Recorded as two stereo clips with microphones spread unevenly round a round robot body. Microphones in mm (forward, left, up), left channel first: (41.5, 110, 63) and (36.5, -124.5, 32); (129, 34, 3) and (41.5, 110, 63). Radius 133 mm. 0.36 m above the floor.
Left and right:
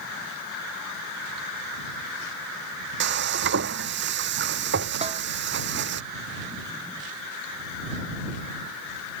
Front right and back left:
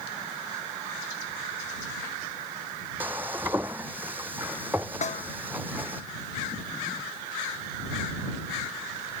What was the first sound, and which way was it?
Frying, 140° right.